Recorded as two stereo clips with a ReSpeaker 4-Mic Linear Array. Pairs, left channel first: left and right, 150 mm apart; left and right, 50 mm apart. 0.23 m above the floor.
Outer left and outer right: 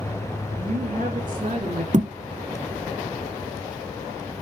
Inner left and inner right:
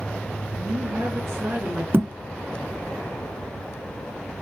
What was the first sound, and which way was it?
A woman speaking, 65° right (ahead or behind).